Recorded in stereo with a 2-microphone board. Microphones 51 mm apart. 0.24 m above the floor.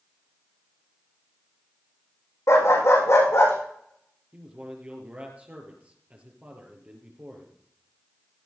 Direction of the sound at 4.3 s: 30° right (ahead or behind).